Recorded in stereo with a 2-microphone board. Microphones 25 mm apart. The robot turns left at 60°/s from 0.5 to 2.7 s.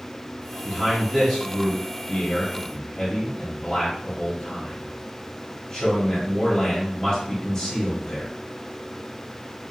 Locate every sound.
0.7 s a man speaking: 135° right, 1.3 m; by 8.3 s 100° left, 1.3 m